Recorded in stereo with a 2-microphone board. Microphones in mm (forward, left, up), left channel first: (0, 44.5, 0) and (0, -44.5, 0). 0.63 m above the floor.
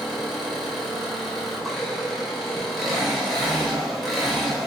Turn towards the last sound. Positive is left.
turn(degrees=0)  # may be behind; listen again after turning